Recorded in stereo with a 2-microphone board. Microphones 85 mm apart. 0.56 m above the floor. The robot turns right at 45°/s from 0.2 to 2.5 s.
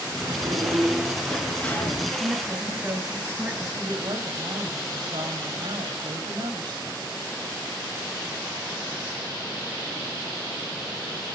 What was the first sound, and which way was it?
A sliding door, 50° right.